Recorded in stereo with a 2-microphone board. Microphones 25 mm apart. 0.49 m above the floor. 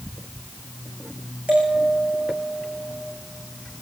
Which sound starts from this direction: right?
A bell, at 1.5 s.